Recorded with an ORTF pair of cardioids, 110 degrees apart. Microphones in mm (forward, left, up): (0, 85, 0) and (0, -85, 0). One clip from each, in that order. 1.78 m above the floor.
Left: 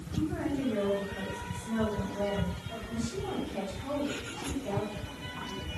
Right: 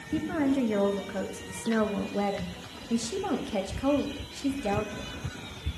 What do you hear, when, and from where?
0.1 s a woman speaking: 70° right, 1.3 m